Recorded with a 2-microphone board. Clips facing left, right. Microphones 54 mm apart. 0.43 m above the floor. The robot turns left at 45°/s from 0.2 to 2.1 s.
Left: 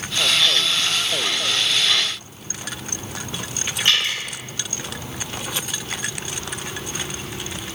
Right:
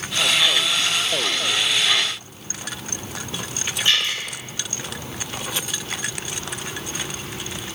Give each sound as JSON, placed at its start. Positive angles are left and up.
{"t": 3.9, "sound": "dripping", "side_deg": 65, "distance_m": 1.2}